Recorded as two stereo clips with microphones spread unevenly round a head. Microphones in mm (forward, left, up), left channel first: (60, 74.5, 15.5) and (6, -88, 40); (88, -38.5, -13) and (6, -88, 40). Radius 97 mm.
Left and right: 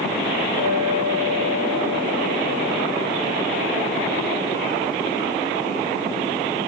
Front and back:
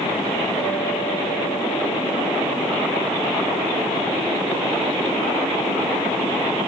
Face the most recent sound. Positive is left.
turn(degrees=80)